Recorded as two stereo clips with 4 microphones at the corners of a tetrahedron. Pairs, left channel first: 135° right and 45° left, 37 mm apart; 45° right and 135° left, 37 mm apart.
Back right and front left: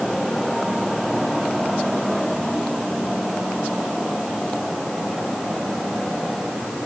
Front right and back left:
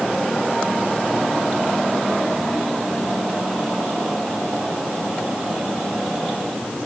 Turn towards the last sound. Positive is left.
No sound to turn to.